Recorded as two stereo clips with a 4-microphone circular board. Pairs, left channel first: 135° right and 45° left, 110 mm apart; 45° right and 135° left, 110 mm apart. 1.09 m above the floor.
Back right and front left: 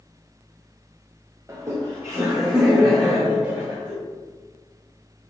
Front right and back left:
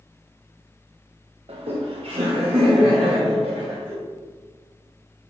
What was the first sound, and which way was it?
Laughter, 105° left.